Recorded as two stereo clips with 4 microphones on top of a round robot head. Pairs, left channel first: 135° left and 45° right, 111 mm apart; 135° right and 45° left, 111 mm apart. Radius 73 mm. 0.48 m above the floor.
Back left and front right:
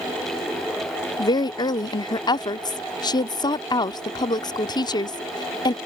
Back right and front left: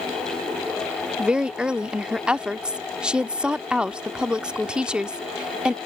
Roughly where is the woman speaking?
Behind left.